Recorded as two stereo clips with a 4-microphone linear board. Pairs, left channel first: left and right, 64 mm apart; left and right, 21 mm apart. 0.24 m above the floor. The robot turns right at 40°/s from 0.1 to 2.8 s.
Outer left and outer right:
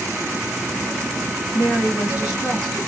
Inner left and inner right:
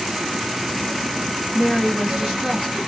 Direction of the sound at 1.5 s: 30° right.